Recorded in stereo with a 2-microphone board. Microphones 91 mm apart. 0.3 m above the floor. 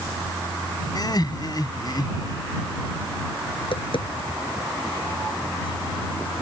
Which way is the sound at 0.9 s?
50° left (ahead or behind).